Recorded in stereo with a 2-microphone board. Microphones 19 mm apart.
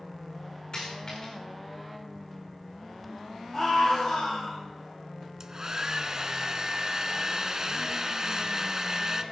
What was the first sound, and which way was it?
A dropped coin, 40° left (ahead or behind).